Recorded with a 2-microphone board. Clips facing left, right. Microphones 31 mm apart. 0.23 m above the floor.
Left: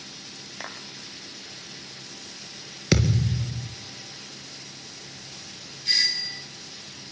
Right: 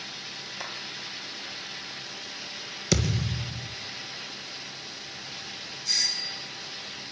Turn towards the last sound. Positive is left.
turn(degrees=45)  # may be behind; listen again after turning